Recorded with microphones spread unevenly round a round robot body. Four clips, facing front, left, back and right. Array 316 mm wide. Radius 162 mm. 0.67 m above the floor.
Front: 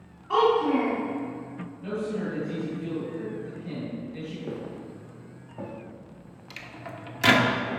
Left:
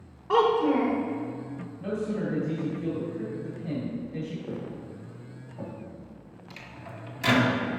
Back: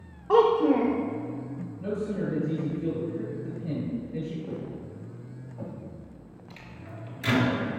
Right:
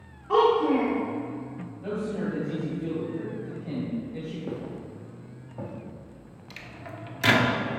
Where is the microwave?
15° right, 1.4 m.